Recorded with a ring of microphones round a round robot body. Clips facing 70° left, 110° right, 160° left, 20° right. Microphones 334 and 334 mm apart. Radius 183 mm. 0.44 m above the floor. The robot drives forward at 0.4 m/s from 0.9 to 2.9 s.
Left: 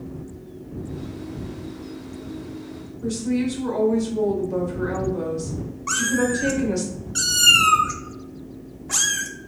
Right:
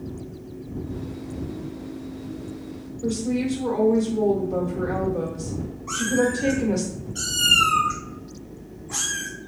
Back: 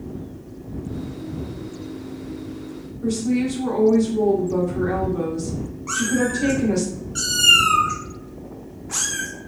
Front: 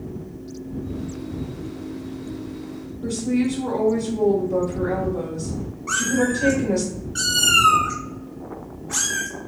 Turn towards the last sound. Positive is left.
turn(degrees=75)